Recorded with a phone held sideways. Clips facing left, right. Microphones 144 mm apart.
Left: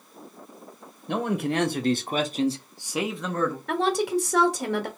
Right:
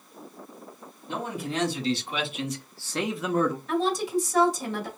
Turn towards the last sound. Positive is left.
turn(degrees=70)  # may be behind; listen again after turning